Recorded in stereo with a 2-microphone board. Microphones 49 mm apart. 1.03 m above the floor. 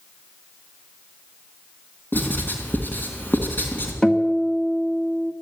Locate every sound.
2.1 s writing: 45° left (ahead or behind), 3.5 m
4.0 s a guitar: 15° left (ahead or behind), 1.6 m